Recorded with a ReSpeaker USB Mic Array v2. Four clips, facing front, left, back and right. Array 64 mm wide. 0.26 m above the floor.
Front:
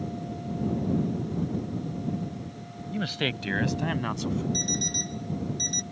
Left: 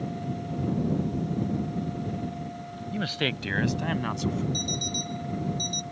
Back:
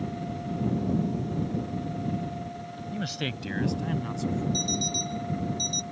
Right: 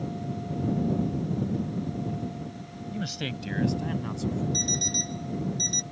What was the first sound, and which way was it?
A man speaking, 65° left.